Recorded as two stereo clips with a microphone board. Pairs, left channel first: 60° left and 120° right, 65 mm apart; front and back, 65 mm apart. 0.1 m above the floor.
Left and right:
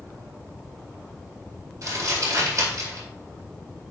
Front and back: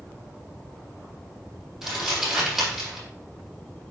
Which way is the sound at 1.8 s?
100° right.